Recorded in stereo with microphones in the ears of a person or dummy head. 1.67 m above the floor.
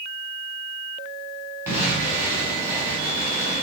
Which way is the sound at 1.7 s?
15° right (ahead or behind).